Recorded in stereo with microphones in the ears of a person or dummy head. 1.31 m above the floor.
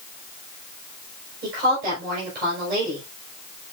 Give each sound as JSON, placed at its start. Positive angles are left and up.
{"t": 1.4, "sound": "a woman speaking", "side_deg": -50, "distance_m": 5.0}